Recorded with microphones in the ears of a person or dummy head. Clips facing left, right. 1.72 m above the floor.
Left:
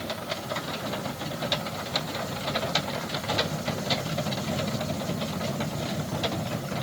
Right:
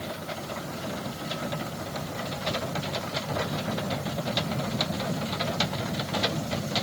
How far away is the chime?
I don't hear a chime.